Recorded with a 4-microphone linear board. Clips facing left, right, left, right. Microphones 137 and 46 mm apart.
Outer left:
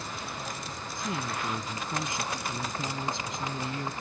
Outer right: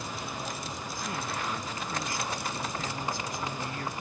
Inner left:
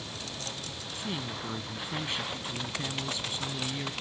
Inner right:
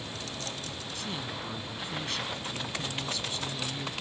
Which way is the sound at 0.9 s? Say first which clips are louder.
Outer left 3 dB, inner left 2 dB; 20° left (ahead or behind).